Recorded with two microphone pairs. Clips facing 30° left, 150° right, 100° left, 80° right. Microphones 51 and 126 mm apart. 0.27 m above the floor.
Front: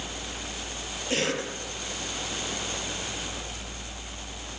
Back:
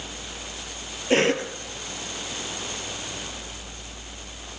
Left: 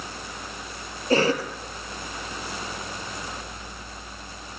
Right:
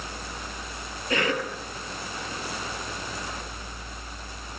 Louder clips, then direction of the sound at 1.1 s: Back 8 dB, left 5 dB; 160° left.